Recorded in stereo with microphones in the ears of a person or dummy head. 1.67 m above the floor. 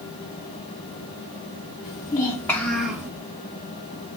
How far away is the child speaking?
About 1.8 m.